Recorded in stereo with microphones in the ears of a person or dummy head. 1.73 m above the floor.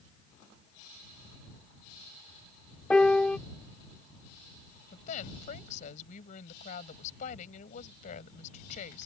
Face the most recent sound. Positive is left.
turn(degrees=45)  # may be behind; listen again after turning